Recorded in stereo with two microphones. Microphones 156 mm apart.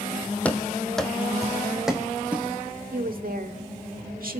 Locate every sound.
0.5 s running footsteps: 10° left (ahead or behind), 1.3 m; by 2.8 s 10° right (ahead or behind), 2.5 m
2.9 s a woman speaking: 65° right (ahead or behind), 1.6 m